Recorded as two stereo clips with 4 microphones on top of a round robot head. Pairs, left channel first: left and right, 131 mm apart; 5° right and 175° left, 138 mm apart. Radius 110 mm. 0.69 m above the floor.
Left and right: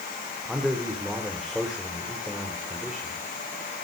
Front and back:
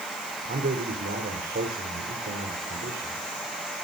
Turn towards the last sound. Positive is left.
turn(degrees=180)